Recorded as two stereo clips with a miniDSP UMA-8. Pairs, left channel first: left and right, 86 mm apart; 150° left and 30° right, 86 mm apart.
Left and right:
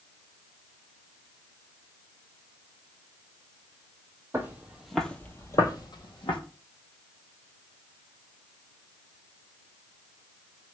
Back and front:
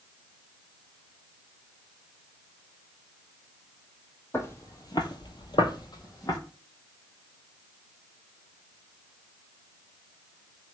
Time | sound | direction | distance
4.3 | footsteps | 150° right | 0.7 m